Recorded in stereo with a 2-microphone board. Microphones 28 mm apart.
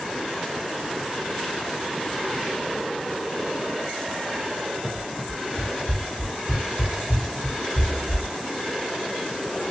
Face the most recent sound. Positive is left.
turn(degrees=60)  # may be behind; listen again after turning